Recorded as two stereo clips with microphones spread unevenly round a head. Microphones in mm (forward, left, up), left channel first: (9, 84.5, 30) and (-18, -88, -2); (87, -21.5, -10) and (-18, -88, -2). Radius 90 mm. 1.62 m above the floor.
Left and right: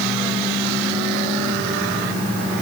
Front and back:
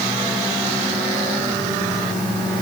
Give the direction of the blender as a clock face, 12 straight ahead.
I don't hear a blender.